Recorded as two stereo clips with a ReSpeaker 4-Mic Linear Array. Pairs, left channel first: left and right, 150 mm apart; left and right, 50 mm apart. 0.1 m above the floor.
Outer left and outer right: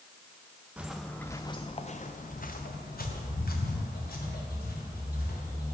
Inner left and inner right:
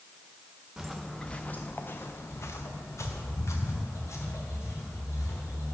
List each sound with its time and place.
0.8 s footsteps: 10° right (ahead or behind), 0.6 m; by 5.7 s 80° left, 2.5 m